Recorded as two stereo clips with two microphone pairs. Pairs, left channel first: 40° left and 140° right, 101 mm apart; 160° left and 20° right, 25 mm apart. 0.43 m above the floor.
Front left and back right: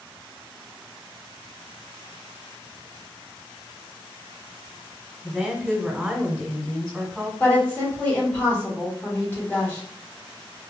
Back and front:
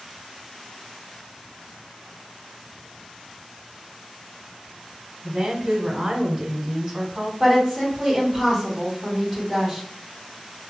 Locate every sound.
5.2 s a woman speaking: 70° right, 1.2 m
7.4 s a woman speaking: 70° left, 1.2 m